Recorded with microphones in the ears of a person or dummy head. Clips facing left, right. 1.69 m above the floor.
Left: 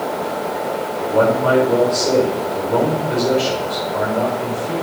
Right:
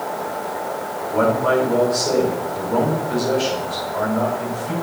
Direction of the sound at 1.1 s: 45° left (ahead or behind).